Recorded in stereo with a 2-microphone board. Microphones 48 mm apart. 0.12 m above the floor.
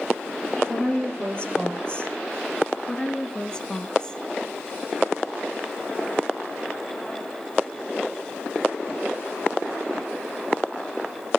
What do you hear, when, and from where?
0.7 s a woman speaking: 20° left (ahead or behind), 3.5 m
2.9 s a woman speaking: 15° left (ahead or behind), 1.2 m